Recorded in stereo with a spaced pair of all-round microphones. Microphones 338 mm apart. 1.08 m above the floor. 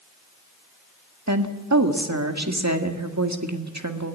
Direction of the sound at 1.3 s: 55° right (ahead or behind).